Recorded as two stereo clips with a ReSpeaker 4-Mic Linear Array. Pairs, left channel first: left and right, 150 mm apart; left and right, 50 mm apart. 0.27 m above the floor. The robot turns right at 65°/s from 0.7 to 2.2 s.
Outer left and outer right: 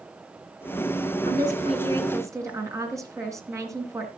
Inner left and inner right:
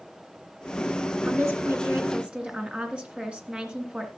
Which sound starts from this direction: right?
A woman speaking, at 1.3 s.